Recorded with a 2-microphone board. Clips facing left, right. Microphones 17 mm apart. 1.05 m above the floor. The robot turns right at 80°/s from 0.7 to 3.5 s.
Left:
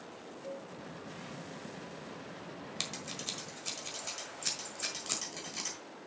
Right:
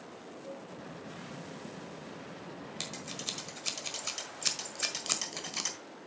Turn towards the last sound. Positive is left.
turn(degrees=-30)  # may be behind; listen again after turning